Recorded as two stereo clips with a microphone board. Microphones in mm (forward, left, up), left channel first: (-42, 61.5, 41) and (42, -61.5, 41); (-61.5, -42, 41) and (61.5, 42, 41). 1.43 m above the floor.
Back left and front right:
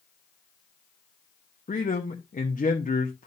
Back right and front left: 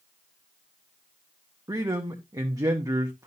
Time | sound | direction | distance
1.7 | a man speaking | 100° left | 0.8 m